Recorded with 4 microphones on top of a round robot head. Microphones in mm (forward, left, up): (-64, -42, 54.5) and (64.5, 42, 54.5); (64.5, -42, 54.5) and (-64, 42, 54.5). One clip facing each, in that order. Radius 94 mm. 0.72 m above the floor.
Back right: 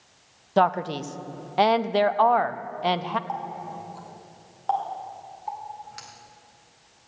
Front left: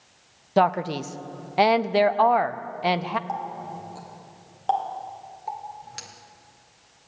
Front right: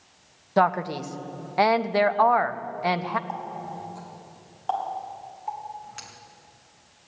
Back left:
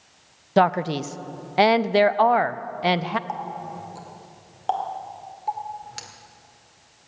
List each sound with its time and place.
0.6 s a man speaking: 110° left, 0.6 m
3.3 s a running tap: 95° left, 1.9 m